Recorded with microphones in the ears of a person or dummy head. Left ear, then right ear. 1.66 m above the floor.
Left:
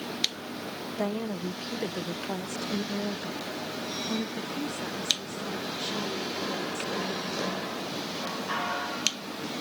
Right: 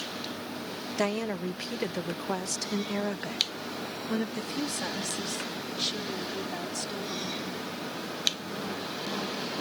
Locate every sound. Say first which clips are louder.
1.0 s a woman speaking: right 3 dB; 65° right (ahead or behind); by 7.5 s 30° right (ahead or behind)